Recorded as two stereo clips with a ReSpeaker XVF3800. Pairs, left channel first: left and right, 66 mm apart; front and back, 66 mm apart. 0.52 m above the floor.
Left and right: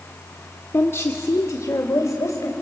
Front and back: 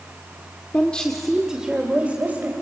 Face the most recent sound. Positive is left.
turn(degrees=120)